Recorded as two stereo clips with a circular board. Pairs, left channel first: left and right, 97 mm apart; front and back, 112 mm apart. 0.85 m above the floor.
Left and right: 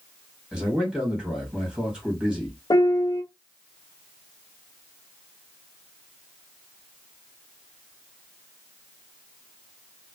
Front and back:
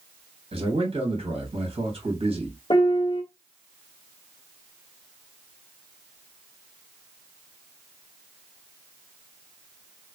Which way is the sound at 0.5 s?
170° right.